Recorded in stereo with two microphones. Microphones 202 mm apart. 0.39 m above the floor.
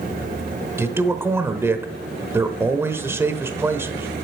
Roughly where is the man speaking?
Centre.